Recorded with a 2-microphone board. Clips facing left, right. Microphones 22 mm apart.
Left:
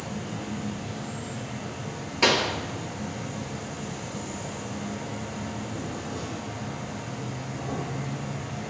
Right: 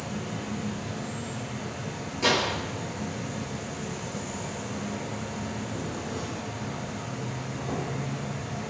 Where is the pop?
55° left (ahead or behind), 0.8 m.